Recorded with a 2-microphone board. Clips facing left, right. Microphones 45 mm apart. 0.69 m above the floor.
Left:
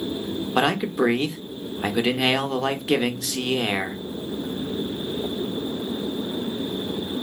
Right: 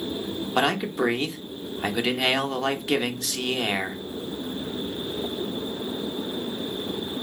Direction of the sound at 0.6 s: 5° left (ahead or behind).